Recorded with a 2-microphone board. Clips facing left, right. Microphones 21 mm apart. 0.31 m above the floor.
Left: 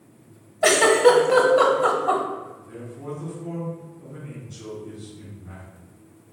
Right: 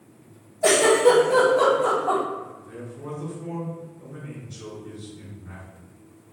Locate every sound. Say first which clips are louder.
0.6 s a giggle: left 1 dB; 60° left (ahead or behind), 0.7 m
2.6 s a man speaking: left 1 dB; 5° left (ahead or behind), 1.5 m